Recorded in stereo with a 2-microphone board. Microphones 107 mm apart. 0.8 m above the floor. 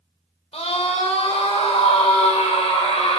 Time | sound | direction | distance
0.5 | a scream | 70° left (ahead or behind) | 3.5 m